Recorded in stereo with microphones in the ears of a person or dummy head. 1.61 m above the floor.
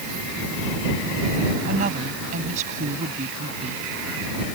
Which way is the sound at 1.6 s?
40° right (ahead or behind).